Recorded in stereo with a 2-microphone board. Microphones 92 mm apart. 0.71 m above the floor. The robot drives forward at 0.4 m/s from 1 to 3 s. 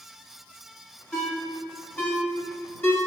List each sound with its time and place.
1.1 s a ringtone: 10° left (ahead or behind), 1.3 m; by 3.0 s 25° left (ahead or behind), 0.6 m